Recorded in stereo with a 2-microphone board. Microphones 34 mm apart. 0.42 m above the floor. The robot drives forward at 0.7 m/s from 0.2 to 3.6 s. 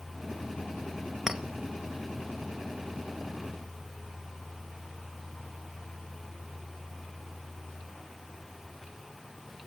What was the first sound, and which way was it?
A clink, 10° right (ahead or behind).